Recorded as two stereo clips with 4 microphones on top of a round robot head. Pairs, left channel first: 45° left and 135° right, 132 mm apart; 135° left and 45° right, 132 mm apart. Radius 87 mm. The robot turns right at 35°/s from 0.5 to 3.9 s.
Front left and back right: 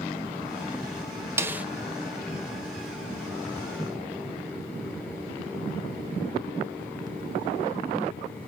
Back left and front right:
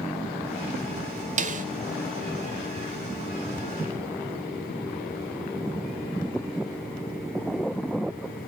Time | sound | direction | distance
1.4 | a snare drum | 65° right | 1.5 m